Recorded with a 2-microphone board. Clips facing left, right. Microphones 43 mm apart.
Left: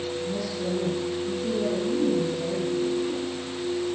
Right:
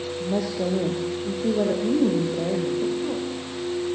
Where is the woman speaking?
80° right, 5.5 m.